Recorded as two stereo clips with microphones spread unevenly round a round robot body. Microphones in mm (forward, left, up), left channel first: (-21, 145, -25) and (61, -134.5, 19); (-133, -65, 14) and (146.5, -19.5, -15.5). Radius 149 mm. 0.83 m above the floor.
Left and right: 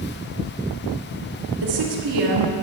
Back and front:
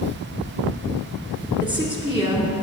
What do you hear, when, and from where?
1.6 s a woman speaking: 75° right, 2 m